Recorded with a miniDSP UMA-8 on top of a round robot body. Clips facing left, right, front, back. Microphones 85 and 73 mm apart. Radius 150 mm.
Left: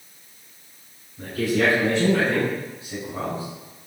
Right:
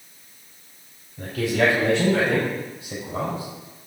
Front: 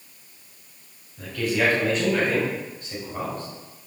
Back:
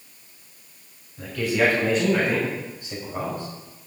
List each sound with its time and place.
1.2 s a man speaking: 95° right, 7 m; by 3.5 s 105° right, 6 m